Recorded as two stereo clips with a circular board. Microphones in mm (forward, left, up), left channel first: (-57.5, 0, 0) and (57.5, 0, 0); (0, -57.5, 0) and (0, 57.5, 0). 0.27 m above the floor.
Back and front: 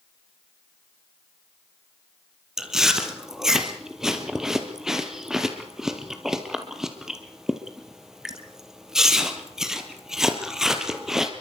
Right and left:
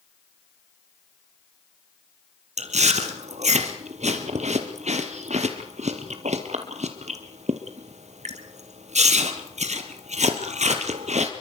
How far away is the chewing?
About 2.5 m.